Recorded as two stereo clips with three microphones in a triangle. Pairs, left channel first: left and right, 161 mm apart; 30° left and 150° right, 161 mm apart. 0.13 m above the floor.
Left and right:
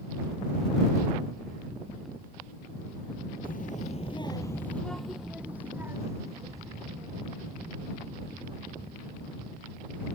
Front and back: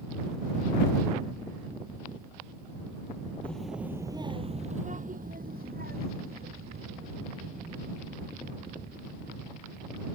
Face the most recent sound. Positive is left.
turn(degrees=-150)